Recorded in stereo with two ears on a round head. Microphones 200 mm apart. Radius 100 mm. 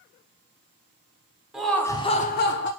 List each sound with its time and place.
1.5 s laughter: centre (ahead or behind), 0.7 m; by 2.7 s 50° left (ahead or behind), 0.6 m